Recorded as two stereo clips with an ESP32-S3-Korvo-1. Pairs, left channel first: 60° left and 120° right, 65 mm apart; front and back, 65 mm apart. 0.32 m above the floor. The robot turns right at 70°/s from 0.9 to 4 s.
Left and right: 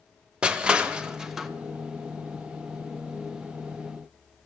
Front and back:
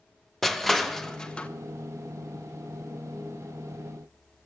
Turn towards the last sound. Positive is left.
turn(degrees=135)